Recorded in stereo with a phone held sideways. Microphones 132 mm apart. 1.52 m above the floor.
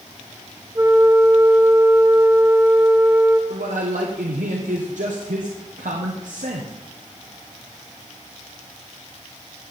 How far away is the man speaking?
About 1.3 m.